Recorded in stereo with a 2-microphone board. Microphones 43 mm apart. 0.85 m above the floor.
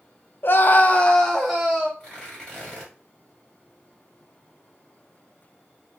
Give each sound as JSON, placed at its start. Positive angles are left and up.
{"t": 0.4, "sound": "a scream", "side_deg": 55, "distance_m": 0.5}
{"t": 2.0, "sound": "tearing paper", "side_deg": 15, "distance_m": 1.7}